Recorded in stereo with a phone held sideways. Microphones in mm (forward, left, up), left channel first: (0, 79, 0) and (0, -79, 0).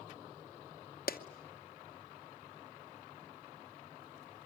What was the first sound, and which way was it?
A clap, 70° left (ahead or behind).